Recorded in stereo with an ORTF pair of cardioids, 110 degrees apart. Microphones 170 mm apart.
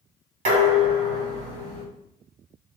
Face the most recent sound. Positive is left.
turn(degrees=-55)